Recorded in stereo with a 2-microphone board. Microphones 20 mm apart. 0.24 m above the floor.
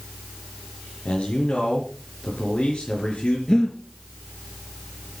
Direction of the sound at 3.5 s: 50° left (ahead or behind).